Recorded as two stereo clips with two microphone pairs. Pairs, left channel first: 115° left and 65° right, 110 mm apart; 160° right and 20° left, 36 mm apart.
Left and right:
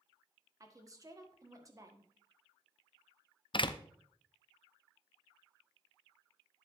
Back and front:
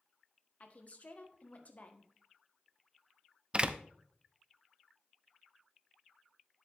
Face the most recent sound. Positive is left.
turn(degrees=80)